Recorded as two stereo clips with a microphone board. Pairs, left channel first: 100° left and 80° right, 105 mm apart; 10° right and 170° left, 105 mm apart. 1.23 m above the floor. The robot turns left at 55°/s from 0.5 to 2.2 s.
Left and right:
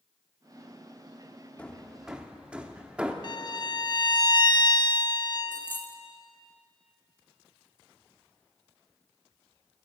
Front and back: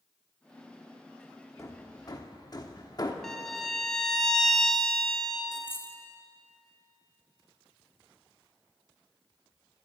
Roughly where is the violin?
Left.